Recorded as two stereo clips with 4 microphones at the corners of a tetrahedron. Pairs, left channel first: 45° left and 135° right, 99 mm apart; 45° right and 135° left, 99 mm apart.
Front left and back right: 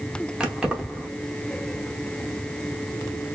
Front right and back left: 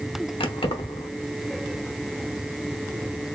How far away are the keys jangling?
About 0.9 m.